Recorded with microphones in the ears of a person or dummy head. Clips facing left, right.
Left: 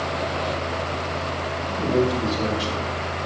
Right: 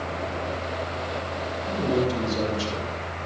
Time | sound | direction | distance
1.7 | a man speaking | 80° right | 6.5 m